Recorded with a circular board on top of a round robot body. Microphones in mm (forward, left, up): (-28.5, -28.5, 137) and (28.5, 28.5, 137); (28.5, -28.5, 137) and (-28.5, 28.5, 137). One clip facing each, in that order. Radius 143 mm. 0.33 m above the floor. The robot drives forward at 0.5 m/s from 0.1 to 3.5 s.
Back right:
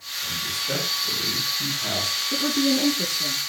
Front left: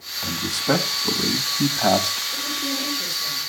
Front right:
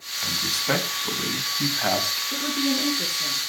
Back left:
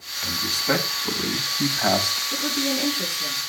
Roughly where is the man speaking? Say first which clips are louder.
Front left 9 dB, back left 2 dB; ahead left.